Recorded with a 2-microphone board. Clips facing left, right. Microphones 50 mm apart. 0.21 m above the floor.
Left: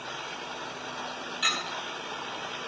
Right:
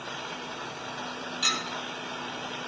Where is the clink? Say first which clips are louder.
Left 1 dB; 15° left (ahead or behind), 1.0 m.